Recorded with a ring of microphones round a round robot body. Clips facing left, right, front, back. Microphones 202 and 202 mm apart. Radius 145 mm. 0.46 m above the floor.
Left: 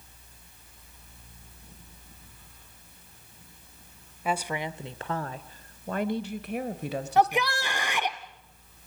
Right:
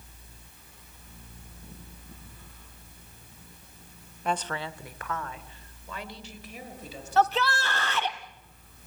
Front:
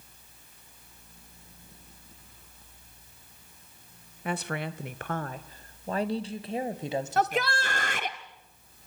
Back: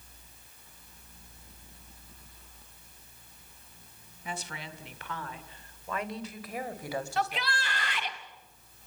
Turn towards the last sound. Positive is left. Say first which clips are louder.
# even, front 6 dB
turn(degrees=20)